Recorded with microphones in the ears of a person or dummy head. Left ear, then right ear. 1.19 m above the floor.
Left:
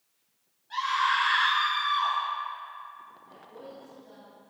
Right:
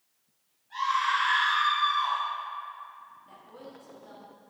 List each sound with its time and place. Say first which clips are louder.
0.7 s a scream: left 1 dB; 65° left (ahead or behind), 3 m
3.2 s a woman speaking: left 2 dB; 40° right (ahead or behind), 2.5 m